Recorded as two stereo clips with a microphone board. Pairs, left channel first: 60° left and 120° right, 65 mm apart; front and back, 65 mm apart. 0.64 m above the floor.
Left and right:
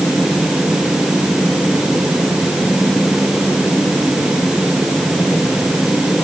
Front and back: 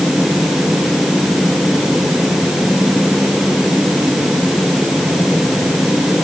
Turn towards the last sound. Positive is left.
No sound to turn to.